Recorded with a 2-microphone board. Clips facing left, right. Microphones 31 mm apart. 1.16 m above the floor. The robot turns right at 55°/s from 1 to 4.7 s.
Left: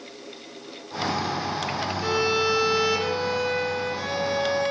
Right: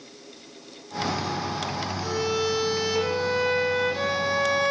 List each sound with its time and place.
2.0 s a violin: 115° left, 1.2 m; by 4.7 s 95° right, 1.2 m